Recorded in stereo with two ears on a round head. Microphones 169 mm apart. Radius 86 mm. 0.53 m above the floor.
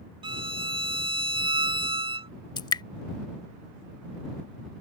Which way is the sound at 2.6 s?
20° left (ahead or behind).